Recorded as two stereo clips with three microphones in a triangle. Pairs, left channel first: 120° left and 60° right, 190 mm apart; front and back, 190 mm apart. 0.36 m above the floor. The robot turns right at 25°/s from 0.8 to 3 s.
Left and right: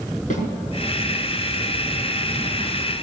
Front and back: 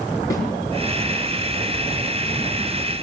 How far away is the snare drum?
About 5 m.